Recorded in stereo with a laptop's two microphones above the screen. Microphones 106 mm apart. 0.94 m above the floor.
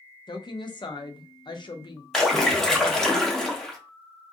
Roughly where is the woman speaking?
Left.